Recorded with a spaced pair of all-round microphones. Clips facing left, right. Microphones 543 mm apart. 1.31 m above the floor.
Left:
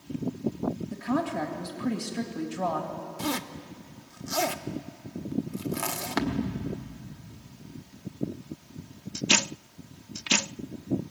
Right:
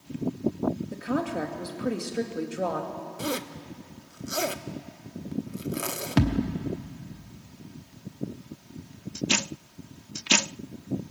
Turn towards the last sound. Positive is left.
turn(degrees=-50)  # may be behind; listen again after turning